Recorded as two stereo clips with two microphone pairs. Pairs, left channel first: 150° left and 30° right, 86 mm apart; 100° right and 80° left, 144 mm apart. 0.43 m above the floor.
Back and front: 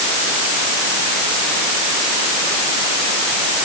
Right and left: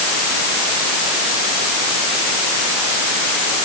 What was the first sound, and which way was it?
Only background noise.